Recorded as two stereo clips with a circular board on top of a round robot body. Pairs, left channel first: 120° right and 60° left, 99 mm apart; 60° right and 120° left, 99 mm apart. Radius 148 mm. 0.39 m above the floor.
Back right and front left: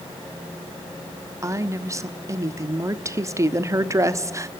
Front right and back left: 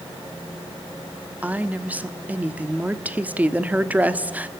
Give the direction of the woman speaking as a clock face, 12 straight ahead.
10 o'clock.